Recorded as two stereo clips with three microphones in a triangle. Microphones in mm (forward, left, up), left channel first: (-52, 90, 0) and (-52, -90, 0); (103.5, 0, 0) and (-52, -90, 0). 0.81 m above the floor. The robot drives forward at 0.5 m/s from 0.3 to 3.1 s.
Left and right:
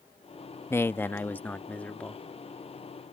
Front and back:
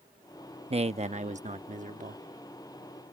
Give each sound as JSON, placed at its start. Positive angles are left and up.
{"t": 0.7, "sound": "a man speaking", "azimuth_deg": 165}